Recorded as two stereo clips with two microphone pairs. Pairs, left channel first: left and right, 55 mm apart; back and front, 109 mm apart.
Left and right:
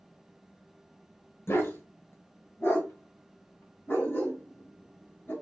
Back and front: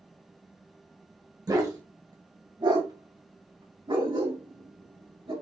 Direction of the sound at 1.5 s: 55° left.